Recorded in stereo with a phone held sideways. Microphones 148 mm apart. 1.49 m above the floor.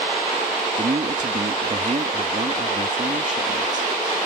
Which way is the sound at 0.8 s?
55° right (ahead or behind).